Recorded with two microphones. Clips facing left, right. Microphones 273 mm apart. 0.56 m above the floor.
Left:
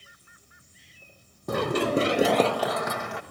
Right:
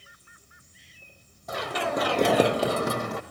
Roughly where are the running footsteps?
Left.